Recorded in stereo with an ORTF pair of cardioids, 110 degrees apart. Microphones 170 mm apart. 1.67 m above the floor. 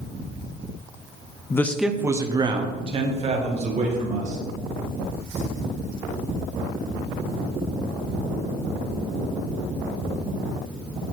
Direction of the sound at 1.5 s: 20° left.